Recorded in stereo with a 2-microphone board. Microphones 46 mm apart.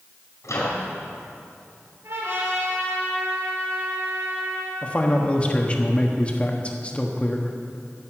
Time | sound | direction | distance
0.4 | a microwave | 80° left | 4.5 m
2.0 | a trumpet | 70° right (ahead or behind) | 4.5 m
4.8 | a man speaking | 25° left (ahead or behind) | 1.2 m